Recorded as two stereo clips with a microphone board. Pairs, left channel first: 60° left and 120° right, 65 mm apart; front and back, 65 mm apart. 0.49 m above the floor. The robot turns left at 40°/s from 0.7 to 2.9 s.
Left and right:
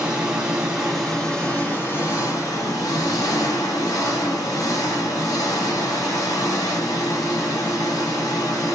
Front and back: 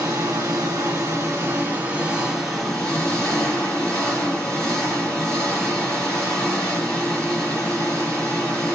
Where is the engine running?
160° left, 1.2 m; by 8.8 s 70° left, 1.2 m.